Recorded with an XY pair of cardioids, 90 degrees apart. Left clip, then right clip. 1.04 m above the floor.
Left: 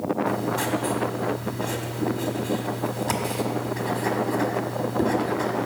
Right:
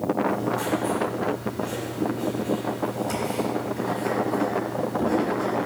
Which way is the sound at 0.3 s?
65° left.